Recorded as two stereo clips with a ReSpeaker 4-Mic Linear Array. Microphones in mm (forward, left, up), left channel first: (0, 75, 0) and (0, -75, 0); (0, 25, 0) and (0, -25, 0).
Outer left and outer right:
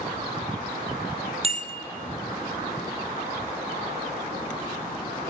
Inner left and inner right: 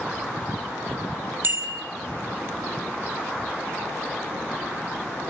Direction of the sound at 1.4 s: 40° right (ahead or behind).